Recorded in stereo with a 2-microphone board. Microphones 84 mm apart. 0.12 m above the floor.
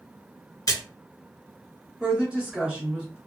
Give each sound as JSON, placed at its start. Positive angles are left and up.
{"t": 0.7, "sound": "a splash", "side_deg": 40, "distance_m": 1.2}
{"t": 2.0, "sound": "a woman speaking", "side_deg": -10, "distance_m": 1.4}